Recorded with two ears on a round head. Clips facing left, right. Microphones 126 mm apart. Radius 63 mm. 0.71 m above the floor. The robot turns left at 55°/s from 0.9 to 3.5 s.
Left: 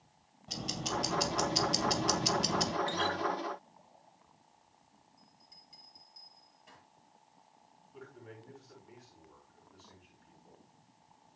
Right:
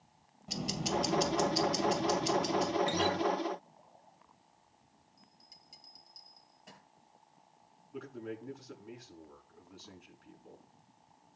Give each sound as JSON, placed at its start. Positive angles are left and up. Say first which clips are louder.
{"t": 0.5, "sound": "ticking", "louder": "right 3 dB", "azimuth_deg": -170, "distance_m": 2.0}
{"t": 2.9, "sound": "a guitar", "louder": "right 3 dB", "side_deg": -20, "distance_m": 0.6}
{"t": 5.2, "sound": "a bell", "louder": "even", "side_deg": -60, "distance_m": 6.5}
{"t": 7.9, "sound": "a man speaking", "louder": "right 8 dB", "side_deg": -80, "distance_m": 6.0}